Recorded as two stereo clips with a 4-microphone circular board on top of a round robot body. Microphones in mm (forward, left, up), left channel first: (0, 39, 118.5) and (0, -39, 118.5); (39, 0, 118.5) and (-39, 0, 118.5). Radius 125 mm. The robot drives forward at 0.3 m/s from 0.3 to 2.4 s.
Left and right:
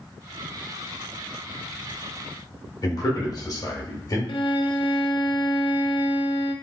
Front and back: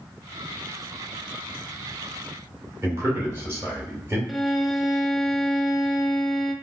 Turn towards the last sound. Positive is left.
turn(degrees=85)